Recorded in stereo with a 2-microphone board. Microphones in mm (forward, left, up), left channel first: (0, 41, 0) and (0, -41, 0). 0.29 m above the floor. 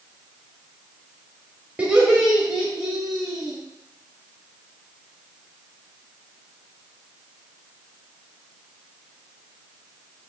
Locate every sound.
1.8 s laughter: 15° right (ahead or behind), 1.2 m; by 3.6 s centre (ahead or behind), 2.0 m